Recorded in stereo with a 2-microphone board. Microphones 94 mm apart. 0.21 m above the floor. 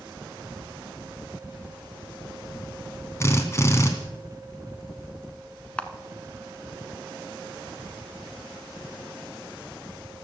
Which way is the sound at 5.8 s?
10° left (ahead or behind).